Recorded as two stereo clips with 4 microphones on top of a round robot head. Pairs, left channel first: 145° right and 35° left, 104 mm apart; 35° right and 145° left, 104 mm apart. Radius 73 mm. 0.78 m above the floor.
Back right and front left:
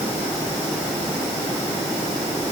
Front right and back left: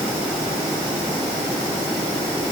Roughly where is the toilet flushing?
I don't hear a toilet flushing.